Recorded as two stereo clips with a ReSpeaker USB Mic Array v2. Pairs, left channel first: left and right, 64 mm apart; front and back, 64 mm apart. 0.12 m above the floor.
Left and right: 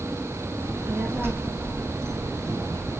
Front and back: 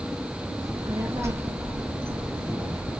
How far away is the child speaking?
About 4.5 m.